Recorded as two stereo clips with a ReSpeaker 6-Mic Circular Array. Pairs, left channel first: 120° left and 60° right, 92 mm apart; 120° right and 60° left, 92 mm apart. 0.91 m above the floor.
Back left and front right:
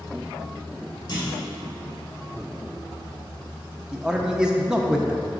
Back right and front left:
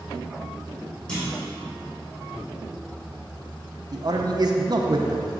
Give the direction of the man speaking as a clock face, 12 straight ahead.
11 o'clock.